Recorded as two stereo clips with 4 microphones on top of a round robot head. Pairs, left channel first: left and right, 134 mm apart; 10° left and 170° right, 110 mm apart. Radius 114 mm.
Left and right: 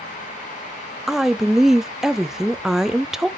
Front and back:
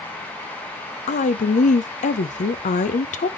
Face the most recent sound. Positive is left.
turn(degrees=-5)